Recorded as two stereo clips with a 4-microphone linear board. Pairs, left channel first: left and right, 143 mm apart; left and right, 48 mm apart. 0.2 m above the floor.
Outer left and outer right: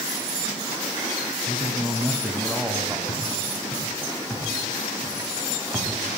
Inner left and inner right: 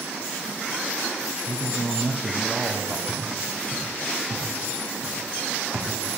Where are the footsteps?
10° left (ahead or behind), 6 m; by 5.9 s 10° right (ahead or behind), 4 m.